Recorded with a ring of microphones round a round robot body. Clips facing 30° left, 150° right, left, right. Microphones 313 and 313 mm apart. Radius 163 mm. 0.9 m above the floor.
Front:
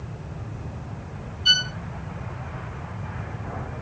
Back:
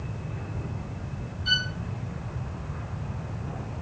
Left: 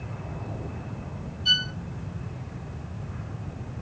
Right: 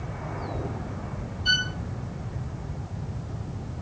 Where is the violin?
15° left, 0.6 m.